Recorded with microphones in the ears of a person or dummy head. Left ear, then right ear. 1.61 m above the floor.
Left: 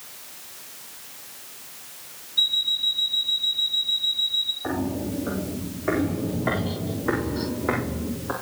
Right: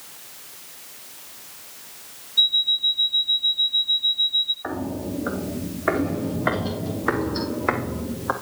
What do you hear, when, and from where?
2.4 s an alarm clock: 25° right (ahead or behind), 1.3 m
4.6 s footsteps: 65° right (ahead or behind), 4 m; by 8.3 s 60° right (ahead or behind), 3.5 m